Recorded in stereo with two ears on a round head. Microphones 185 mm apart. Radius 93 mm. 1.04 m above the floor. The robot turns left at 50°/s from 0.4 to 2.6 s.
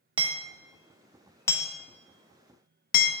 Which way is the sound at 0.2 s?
25° right (ahead or behind).